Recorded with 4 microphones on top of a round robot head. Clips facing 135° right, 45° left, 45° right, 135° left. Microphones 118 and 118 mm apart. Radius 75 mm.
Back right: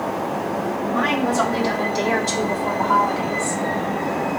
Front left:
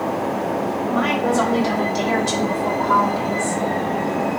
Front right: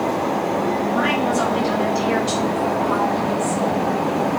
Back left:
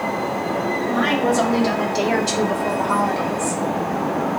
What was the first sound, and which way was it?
A woman speaking, 135° left.